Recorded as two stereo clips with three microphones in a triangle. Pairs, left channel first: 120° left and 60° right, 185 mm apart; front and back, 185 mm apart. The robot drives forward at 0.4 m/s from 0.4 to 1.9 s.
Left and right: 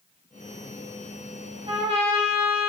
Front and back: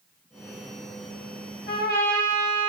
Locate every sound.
1.7 s a trumpet: 5° right, 0.8 m